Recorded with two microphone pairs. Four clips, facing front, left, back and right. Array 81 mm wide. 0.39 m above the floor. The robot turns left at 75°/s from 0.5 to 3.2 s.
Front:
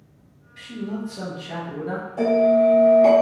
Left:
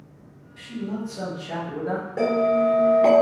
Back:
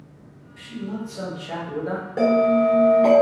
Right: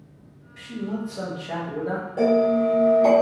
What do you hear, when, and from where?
0.6 s a man speaking: 55° right, 1.9 m; by 2.1 s 165° right, 1.9 m
2.2 s a bell: 160° left, 1.6 m; by 3.2 s 85° left, 1.6 m